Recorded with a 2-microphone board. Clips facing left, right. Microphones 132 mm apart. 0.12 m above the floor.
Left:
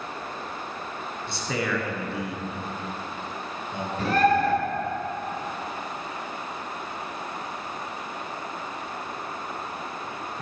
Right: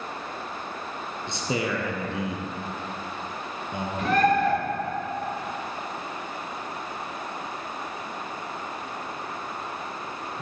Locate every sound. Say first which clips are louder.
1.3 s a man speaking: right 1 dB; 20° right (ahead or behind), 1.2 m
4.0 s a bird: even; 35° left (ahead or behind), 2.5 m